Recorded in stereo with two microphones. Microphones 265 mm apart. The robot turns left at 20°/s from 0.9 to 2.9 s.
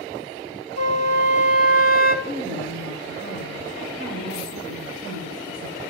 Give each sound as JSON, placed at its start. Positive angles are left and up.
{"t": 0.8, "sound": "a flute", "side_deg": -75, "distance_m": 0.7}
{"t": 2.2, "sound": "a woman speaking", "side_deg": -60, "distance_m": 4.0}